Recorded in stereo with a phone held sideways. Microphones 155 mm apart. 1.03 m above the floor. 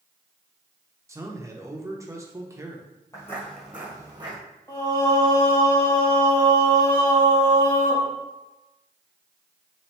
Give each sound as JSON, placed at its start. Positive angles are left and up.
{"t": 1.1, "sound": "a man speaking", "side_deg": -20, "distance_m": 0.9}
{"t": 3.1, "sound": "footsteps", "side_deg": 20, "distance_m": 1.7}
{"t": 4.7, "sound": "singing", "side_deg": 25, "distance_m": 1.3}